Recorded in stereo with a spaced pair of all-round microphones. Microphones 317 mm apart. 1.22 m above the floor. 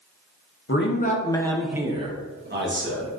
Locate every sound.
0.7 s a man speaking: 40° left (ahead or behind), 0.7 m; by 3.1 s 45° right (ahead or behind), 1.1 m